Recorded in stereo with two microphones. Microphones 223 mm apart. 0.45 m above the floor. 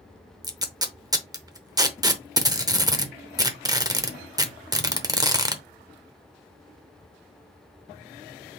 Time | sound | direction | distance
0.4 | tape being pulled | 15° right (ahead or behind) | 0.7 m